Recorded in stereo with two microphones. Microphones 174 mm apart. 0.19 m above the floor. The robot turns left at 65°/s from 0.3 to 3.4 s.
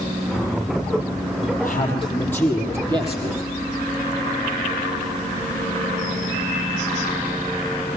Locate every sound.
1.6 s a man speaking: 60° left, 6.5 m; by 3.4 s 60° right, 6.5 m